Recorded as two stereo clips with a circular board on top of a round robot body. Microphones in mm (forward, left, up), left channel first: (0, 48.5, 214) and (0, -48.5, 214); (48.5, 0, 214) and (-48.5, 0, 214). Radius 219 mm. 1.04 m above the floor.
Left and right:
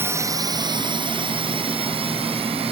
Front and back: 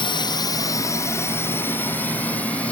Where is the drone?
25° right; by 2.7 s 75° right.